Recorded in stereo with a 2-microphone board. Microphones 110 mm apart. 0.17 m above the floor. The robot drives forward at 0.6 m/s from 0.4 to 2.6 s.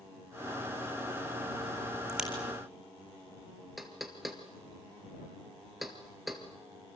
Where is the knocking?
Centre (ahead or behind), 2.5 m.